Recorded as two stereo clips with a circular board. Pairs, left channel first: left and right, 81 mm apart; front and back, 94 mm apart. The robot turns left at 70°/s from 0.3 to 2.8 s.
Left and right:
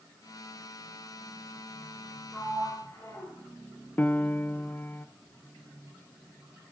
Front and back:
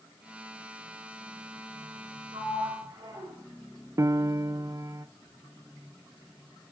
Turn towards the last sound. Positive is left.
turn(degrees=145)